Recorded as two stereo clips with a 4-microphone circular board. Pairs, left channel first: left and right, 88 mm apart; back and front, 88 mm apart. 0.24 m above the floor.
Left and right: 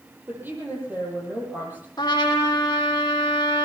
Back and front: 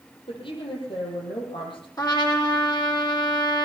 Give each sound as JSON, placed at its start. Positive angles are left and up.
{"t": 0.3, "sound": "a woman speaking", "azimuth_deg": -160, "distance_m": 8.5}
{"t": 2.0, "sound": "a trumpet", "azimuth_deg": 135, "distance_m": 7.5}